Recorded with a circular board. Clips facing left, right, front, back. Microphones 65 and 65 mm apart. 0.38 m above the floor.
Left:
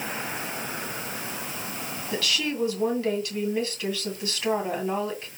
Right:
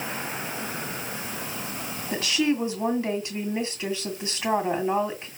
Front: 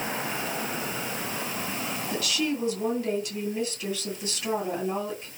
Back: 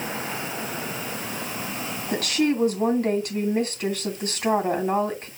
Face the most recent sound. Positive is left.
turn(degrees=-155)